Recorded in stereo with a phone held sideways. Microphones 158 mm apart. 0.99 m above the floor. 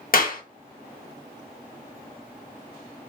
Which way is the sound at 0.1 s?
65° left (ahead or behind).